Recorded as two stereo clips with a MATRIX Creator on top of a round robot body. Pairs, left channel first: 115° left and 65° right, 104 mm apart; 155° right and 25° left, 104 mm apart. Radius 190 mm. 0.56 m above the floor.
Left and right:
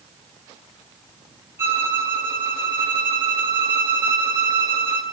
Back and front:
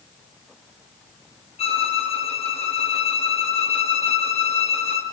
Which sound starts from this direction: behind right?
A violin, at 1.6 s.